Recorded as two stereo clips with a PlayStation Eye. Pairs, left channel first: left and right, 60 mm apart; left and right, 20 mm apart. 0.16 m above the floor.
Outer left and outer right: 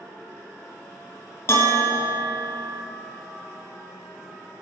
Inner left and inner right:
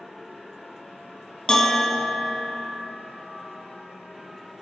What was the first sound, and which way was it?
A bell, 45° left (ahead or behind).